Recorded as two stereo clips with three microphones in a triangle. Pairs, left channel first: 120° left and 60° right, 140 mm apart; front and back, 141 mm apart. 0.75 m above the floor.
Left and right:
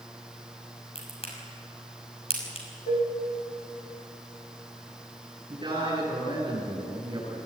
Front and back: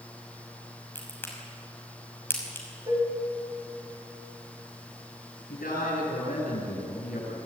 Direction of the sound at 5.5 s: 5° right.